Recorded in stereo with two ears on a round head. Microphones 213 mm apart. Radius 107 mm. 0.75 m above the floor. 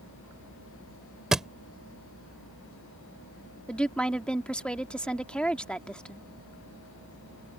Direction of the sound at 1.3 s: Centre (ahead or behind).